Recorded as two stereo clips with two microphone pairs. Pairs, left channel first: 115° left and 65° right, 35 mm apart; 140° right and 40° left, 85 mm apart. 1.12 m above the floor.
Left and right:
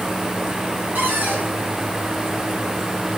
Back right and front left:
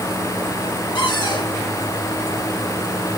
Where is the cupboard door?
115° right, 4.5 m.